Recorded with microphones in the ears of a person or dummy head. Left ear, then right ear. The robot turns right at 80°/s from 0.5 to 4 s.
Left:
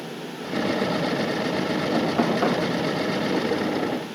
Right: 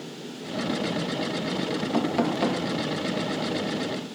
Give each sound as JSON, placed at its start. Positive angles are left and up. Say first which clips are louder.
{"t": 1.9, "sound": "knocking", "louder": "left 2 dB", "azimuth_deg": -20, "distance_m": 2.5}